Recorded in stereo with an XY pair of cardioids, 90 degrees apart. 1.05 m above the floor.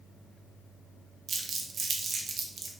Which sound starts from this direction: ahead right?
Crumpling, at 1.3 s.